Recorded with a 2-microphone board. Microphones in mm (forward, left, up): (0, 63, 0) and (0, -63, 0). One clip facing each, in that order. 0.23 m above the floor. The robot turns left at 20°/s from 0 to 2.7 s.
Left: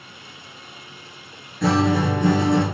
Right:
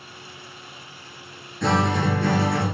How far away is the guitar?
About 1.1 m.